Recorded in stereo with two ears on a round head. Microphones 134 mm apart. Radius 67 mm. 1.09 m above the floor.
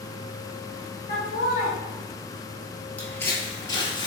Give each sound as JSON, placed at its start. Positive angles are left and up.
{"t": 1.1, "sound": "laughter", "side_deg": 60, "distance_m": 1.7}
{"t": 3.0, "sound": "footsteps", "side_deg": 10, "distance_m": 1.2}